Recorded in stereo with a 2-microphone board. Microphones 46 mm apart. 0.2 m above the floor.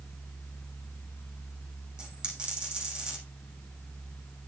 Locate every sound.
2.0 s a dropped coin: 20° right (ahead or behind), 6 m